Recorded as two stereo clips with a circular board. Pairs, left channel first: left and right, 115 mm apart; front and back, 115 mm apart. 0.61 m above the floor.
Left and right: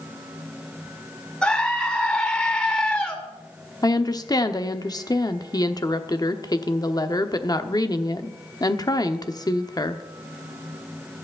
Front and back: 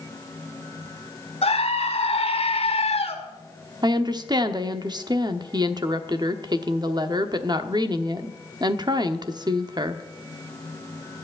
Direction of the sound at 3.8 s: 135° left.